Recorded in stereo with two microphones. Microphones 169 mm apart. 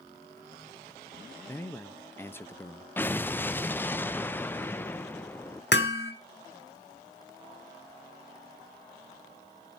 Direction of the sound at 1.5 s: 15° left (ahead or behind).